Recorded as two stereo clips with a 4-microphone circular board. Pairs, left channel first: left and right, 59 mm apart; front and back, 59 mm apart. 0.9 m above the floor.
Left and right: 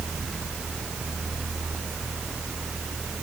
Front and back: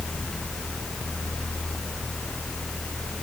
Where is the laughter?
I don't hear laughter.